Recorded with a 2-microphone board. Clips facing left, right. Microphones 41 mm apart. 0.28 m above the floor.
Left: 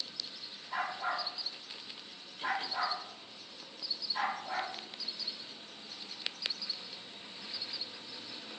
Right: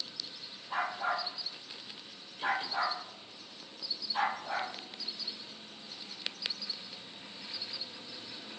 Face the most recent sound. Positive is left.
turn(degrees=-35)  # may be behind; listen again after turning